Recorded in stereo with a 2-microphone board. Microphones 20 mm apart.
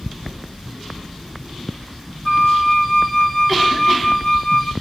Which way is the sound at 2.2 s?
35° left (ahead or behind).